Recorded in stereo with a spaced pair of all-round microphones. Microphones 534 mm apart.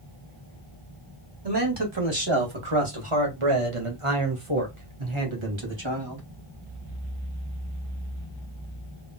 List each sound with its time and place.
1.4 s a man speaking: 45° right (ahead or behind), 2 m; by 6.2 s 50° right (ahead or behind), 2.5 m